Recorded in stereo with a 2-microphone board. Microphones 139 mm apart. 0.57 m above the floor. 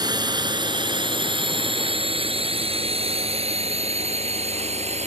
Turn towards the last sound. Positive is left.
turn(degrees=-50)  # may be behind; listen again after turning